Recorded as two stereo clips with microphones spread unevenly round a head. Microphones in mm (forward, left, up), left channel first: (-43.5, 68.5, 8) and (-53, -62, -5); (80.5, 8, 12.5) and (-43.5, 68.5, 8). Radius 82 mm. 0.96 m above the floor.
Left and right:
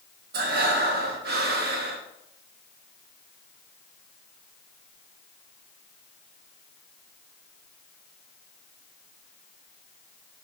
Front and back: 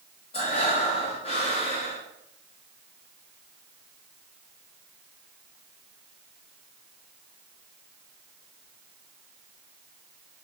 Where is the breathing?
85° right, 0.9 m.